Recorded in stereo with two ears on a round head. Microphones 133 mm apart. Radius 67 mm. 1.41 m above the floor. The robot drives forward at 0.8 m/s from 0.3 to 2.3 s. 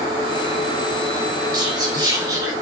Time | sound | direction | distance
1.5 | whispering | 30° right (ahead or behind) | 4 m